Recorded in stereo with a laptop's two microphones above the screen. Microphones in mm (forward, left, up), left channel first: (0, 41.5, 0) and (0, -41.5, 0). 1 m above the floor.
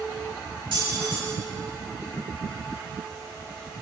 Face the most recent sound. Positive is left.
turn(degrees=-85)